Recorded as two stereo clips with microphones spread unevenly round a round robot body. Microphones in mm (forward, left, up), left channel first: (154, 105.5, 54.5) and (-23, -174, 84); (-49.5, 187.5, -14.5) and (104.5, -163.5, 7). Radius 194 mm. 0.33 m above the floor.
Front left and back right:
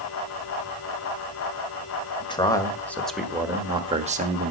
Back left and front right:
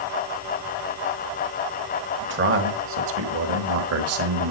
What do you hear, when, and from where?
2.2 s a man speaking: 10° right, 1.7 m; by 4.5 s 80° right, 1.2 m